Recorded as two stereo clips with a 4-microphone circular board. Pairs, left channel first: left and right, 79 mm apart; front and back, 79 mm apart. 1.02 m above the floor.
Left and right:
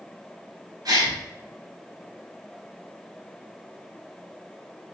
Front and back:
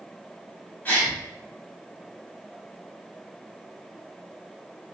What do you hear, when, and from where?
0.8 s a gasp: 65° right, 1.4 m